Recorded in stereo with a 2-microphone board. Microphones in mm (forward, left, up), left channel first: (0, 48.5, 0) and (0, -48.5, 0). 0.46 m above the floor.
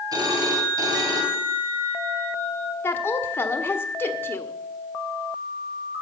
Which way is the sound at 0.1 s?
40° right (ahead or behind).